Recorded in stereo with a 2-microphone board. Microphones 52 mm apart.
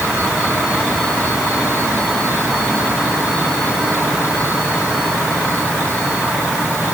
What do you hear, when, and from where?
Only background noise.